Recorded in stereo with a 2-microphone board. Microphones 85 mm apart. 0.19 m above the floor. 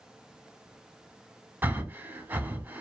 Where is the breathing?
25° right (ahead or behind), 0.7 m.